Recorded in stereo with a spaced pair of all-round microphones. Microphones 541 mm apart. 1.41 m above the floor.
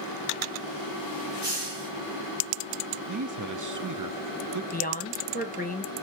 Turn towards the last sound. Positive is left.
turn(degrees=15)  # may be behind; listen again after turning